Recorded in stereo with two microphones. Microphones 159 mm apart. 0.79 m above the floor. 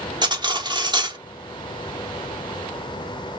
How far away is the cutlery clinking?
About 0.9 m.